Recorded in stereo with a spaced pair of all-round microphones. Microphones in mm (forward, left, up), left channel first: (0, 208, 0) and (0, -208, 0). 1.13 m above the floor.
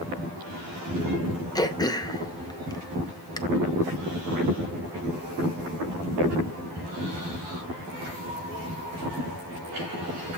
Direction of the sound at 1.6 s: 10° left (ahead or behind).